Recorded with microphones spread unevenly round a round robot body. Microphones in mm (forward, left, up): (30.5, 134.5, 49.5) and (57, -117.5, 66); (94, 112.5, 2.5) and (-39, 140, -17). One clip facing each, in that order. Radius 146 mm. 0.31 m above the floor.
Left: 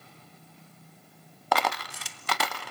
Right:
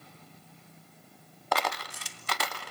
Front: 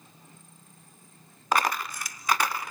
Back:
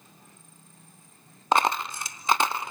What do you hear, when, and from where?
1.5 s a dropped coin: 105° left, 1.2 m